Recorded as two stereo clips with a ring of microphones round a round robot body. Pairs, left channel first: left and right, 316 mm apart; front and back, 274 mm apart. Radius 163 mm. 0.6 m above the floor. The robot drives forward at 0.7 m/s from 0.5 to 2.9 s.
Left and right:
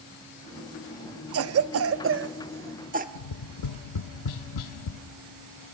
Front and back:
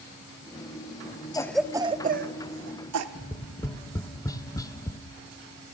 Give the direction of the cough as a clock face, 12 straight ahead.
2 o'clock.